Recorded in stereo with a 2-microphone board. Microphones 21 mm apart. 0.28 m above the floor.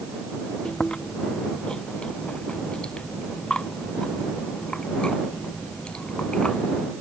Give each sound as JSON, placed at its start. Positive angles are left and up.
{"t": 0.7, "sound": "chewing", "side_deg": 45}